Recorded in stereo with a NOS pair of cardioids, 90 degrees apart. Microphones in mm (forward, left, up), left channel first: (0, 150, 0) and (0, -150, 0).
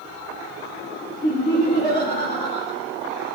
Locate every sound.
1.2 s laughter: 20° left, 3.5 m